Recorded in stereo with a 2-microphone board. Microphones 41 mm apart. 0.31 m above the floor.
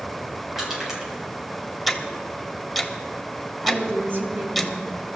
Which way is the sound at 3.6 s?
55° right (ahead or behind).